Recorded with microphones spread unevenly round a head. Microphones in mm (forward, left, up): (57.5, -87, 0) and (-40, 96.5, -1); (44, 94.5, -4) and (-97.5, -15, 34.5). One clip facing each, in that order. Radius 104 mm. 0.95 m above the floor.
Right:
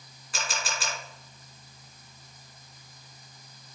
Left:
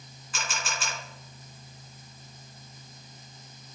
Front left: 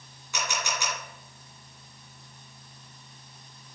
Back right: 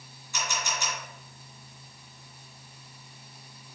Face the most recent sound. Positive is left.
turn(degrees=-10)